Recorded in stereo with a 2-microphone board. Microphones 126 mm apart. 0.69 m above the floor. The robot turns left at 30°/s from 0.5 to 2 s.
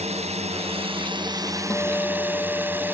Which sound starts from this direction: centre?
A guitar, at 1.7 s.